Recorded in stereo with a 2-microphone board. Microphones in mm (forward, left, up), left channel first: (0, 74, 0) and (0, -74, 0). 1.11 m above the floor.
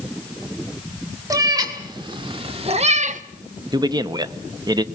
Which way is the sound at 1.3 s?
25° right (ahead or behind).